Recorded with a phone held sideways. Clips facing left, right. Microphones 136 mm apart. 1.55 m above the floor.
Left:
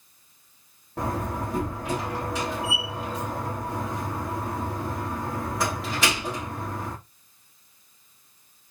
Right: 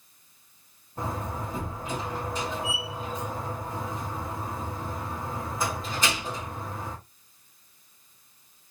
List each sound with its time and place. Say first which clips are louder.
1.0 s a door slam: left 4 dB; 75° left (ahead or behind), 2.5 m